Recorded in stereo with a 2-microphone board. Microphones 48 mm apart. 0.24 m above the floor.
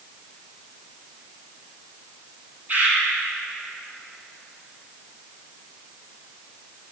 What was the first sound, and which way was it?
A bird, 30° right (ahead or behind).